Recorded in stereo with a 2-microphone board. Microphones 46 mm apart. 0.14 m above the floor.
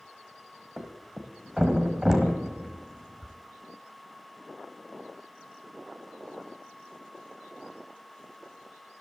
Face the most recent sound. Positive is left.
turn(degrees=-10)  # may be behind; listen again after turning